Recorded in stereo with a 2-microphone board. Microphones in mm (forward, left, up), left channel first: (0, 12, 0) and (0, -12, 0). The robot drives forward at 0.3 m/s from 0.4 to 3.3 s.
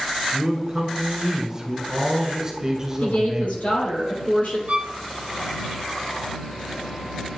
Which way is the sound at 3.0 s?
70° left (ahead or behind).